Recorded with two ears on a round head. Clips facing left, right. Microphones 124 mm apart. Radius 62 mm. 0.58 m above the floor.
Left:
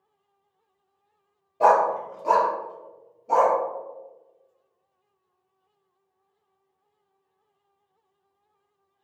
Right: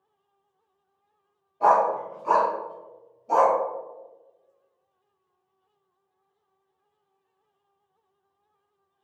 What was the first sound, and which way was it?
A dog barking, 80° left.